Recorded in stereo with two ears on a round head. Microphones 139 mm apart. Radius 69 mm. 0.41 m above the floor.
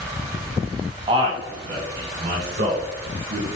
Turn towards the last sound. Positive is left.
turn(degrees=-50)  # may be behind; listen again after turning